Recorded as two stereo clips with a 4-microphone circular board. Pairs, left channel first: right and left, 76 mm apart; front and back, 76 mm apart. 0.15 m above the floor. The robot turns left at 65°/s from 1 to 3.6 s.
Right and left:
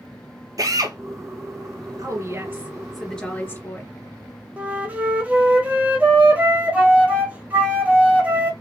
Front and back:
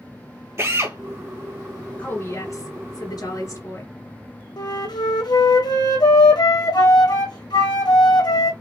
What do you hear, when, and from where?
0.6 s a drill: 125° left, 1.4 m
2.0 s a woman speaking: 65° left, 3 m; by 3.9 s 40° right, 3 m
4.6 s a flute: 20° left, 1.9 m